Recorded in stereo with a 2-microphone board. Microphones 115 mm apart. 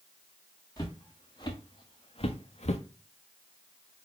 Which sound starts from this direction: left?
Footsteps, at 0.8 s.